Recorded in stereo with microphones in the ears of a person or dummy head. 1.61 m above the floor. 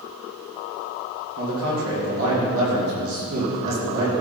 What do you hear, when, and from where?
1.4 s a man speaking: 70° right (ahead or behind), 3 m